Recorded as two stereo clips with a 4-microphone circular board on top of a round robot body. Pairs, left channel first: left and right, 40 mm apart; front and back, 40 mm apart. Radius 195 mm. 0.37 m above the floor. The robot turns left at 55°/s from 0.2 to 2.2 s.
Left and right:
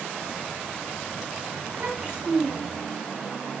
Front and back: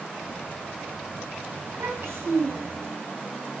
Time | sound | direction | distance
1.6 | a child speaking | 135° right | 3.5 m